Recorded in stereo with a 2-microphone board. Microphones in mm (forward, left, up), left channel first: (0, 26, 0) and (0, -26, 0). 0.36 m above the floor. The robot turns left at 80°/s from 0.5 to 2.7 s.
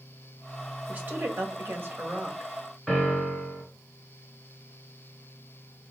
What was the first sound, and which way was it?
A woman speaking, 40° right.